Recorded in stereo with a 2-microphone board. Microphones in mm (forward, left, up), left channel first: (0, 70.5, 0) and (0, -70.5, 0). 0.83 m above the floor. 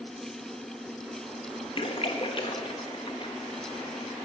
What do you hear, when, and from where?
1.8 s a splash: 40° left (ahead or behind), 1.1 m